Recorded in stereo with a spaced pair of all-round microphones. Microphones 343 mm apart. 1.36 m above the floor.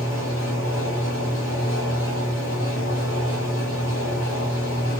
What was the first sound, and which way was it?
A fan, 40° left (ahead or behind).